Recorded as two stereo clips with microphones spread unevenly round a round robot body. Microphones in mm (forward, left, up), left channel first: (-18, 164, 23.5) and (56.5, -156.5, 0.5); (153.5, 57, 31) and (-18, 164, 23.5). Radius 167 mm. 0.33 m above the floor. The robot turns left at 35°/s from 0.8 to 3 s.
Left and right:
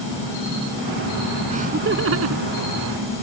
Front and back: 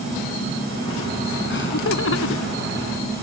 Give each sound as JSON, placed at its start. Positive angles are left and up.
{"t": 1.5, "sound": "laughter", "azimuth_deg": -5}